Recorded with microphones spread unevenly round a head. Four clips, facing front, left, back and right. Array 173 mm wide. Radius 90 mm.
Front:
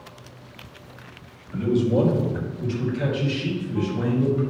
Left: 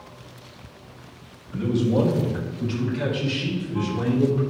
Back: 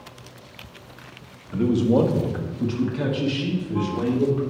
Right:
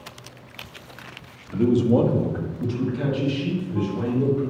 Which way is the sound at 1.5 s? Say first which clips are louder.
Right 3 dB, back 2 dB; 140° right.